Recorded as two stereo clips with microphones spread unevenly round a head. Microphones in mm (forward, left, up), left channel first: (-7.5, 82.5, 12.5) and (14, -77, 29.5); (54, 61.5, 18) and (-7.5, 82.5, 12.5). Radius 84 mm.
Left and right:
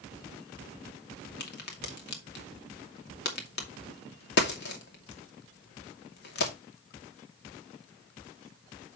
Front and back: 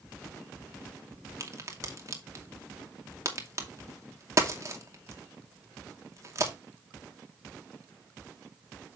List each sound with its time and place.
1.4 s a crack: 120° left, 2.5 m